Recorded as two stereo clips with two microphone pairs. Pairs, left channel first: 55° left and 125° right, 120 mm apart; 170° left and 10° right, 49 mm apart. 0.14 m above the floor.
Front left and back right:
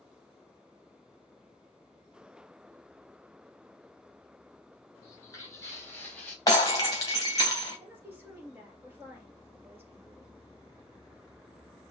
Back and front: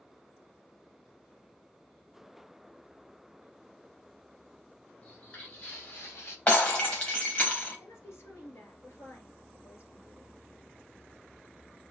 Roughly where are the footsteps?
Behind left.